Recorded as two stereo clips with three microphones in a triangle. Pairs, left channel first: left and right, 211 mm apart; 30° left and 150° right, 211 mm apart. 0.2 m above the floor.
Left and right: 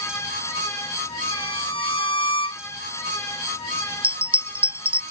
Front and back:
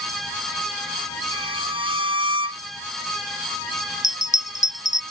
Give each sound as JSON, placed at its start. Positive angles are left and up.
{"t": 1.3, "sound": "a violin", "azimuth_deg": 25}
{"t": 4.0, "sound": "a bell", "azimuth_deg": -25}